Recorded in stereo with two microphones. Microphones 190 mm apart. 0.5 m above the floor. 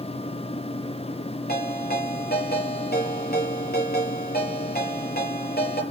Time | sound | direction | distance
1.5 | a ringtone | 55° left (ahead or behind) | 5.5 m